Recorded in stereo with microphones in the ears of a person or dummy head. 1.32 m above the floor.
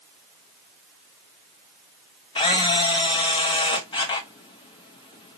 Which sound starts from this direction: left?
A camera shutter, at 2.4 s.